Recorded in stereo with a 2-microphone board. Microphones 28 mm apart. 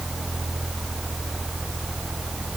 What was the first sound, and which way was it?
Only background noise.